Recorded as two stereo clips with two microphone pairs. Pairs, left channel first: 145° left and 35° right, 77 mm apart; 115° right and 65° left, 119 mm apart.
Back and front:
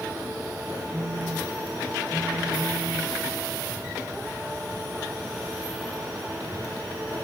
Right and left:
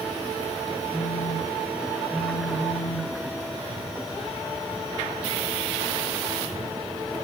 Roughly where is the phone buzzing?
Ahead right.